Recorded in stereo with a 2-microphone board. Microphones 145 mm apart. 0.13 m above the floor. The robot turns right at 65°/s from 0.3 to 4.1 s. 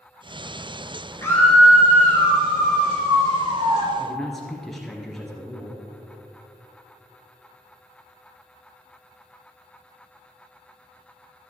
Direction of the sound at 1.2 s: 155° left.